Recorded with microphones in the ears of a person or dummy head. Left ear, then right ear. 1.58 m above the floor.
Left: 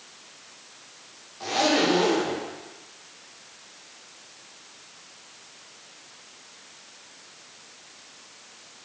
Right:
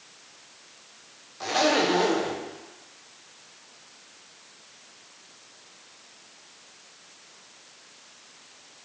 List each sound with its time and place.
1.4 s a zipper: 25° right (ahead or behind), 1.0 m